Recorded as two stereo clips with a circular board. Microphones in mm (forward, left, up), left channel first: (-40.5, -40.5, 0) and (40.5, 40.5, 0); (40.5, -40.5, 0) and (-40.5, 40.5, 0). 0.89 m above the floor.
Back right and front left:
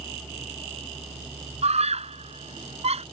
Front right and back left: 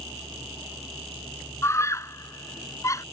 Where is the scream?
20° left.